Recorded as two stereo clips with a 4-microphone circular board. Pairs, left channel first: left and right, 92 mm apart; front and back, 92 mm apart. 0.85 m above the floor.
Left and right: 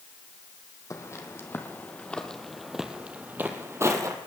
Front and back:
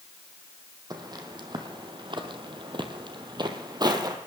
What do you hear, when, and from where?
0.9 s footsteps: 145° left, 2.0 m; by 4.2 s 140° right, 1.9 m